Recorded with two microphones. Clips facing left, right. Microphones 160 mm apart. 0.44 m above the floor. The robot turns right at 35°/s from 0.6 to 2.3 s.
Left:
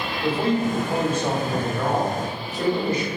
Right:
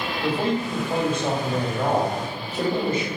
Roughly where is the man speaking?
Behind.